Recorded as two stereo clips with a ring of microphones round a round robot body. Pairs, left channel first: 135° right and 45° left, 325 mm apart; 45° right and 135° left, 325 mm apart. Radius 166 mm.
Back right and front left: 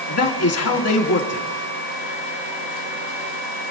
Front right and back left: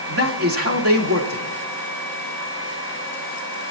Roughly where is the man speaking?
Behind.